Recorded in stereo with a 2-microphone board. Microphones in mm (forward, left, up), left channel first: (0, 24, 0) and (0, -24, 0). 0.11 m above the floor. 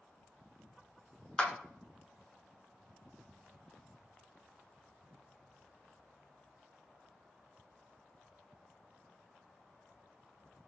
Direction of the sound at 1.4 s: 20° left (ahead or behind).